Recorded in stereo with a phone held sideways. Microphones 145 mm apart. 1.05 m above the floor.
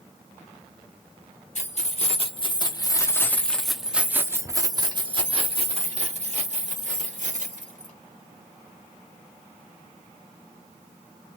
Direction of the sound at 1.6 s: 50° left (ahead or behind).